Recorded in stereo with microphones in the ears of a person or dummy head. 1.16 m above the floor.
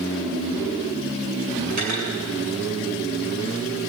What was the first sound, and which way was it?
Cutlery clinking, 50° right (ahead or behind).